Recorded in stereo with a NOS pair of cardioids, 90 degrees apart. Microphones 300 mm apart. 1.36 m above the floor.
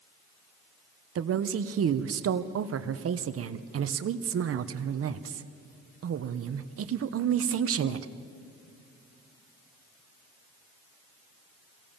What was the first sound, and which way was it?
A woman speaking, 55° right.